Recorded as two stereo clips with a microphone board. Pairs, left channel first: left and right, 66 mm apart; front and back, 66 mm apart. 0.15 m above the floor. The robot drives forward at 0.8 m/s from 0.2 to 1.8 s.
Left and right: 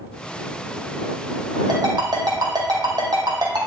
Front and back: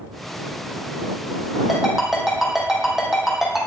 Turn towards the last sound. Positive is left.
turn(degrees=-95)